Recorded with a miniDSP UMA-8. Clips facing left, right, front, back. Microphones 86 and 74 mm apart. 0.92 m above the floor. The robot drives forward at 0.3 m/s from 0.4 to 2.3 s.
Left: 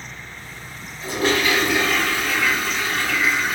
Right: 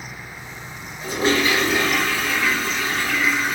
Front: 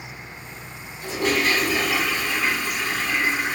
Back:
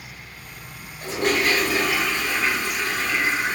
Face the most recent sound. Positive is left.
turn(degrees=-150)